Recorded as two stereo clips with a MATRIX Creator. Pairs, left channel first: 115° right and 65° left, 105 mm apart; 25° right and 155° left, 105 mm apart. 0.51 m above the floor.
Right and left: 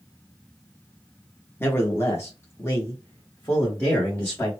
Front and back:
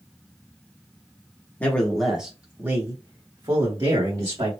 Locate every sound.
1.6 s a man speaking: 75° right, 0.8 m; by 4.5 s straight behind, 1.5 m